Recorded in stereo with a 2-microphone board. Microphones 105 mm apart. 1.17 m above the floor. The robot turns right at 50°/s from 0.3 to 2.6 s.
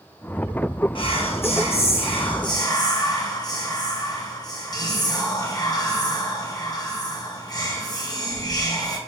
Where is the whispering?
55° left, 1.8 m; by 9.0 s 140° left, 1.8 m.